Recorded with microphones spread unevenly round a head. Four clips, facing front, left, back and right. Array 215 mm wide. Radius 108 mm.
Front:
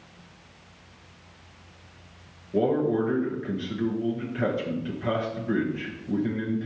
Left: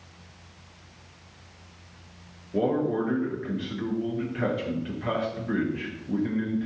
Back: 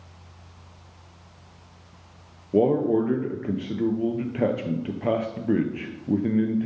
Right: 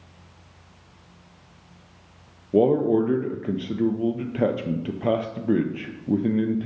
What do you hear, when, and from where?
2.5 s a man speaking: 125° right, 0.8 m